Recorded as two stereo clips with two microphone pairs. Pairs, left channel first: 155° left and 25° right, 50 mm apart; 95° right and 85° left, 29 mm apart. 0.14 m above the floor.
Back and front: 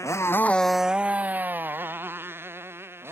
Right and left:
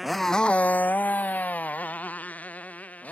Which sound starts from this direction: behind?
A motorcycle, at 0.0 s.